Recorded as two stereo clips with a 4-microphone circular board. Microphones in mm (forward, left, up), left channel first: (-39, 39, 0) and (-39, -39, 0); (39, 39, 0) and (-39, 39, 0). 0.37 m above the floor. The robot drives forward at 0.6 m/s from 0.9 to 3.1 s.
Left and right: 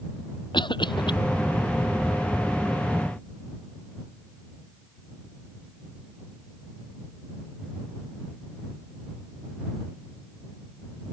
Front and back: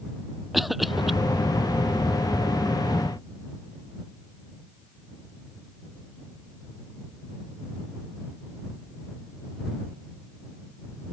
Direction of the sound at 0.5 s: 90° left.